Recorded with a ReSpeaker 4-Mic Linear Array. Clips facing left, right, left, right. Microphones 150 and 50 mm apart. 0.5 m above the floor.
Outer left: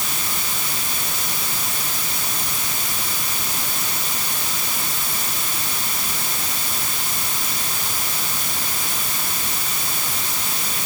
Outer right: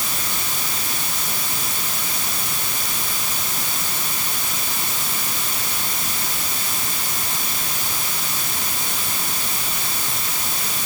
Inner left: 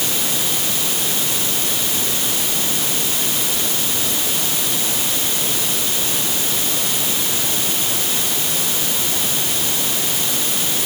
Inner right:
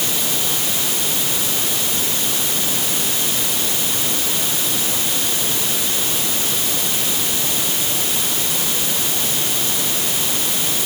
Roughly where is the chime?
I don't hear a chime.